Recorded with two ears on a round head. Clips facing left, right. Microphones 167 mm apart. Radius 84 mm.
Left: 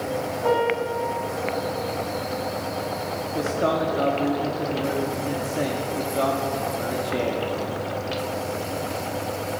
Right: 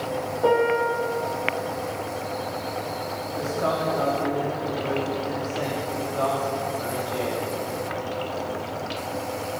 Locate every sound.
0.4 s a piano: 65° right (ahead or behind), 4.5 m
3.3 s a man speaking: 40° left (ahead or behind), 1.6 m